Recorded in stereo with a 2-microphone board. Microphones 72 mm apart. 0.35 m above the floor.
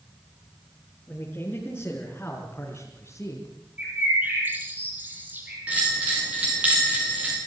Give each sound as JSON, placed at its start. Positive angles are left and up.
{"t": 1.1, "sound": "a man speaking", "side_deg": 20, "distance_m": 5.0}
{"t": 3.8, "sound": "a bird", "side_deg": -25, "distance_m": 7.0}
{"t": 5.7, "sound": "a bell", "side_deg": -20, "distance_m": 9.0}